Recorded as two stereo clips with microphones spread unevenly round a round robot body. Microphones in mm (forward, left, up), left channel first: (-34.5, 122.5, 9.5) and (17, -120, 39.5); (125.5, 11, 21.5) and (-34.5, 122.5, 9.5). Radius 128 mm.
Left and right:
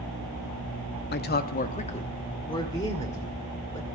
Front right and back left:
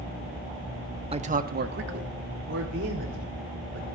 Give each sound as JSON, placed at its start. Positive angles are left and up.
{"t": 1.1, "sound": "a man speaking", "azimuth_deg": 100, "distance_m": 0.8}